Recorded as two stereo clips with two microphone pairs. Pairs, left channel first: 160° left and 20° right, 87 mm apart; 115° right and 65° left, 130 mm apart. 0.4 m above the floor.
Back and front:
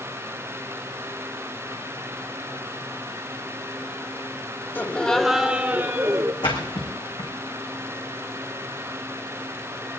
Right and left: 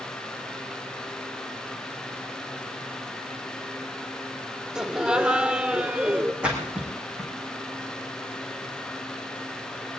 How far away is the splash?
About 4 m.